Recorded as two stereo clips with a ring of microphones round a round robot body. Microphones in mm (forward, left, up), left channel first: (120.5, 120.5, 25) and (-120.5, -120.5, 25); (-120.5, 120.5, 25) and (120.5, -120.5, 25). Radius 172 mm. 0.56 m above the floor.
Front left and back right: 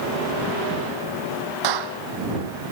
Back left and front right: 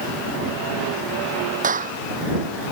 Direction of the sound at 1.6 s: 115° right.